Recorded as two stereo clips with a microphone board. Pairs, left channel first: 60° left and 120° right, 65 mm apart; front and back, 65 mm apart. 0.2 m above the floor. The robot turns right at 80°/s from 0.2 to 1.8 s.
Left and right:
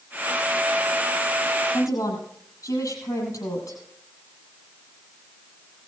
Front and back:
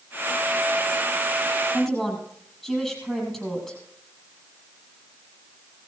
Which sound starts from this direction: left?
A woman speaking, at 1.7 s.